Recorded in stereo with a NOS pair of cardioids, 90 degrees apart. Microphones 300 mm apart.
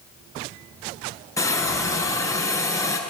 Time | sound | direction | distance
1.4 | a hiss | 10° left | 7 m